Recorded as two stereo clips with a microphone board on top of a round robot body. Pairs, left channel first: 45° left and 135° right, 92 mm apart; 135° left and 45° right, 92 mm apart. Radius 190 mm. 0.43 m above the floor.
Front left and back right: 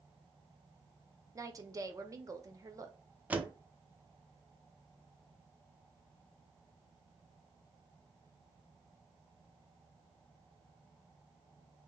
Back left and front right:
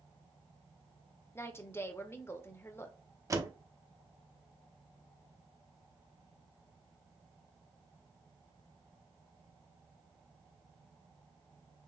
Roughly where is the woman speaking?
Behind.